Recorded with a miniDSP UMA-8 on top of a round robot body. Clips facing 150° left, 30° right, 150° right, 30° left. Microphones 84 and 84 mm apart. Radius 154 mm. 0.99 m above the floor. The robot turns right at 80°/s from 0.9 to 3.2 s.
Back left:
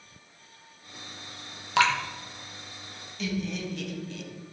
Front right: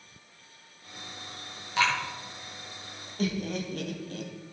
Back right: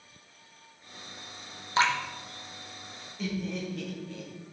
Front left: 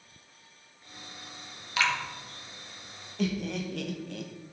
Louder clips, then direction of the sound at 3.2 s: Front right 1 dB, front left 3 dB; 15° left.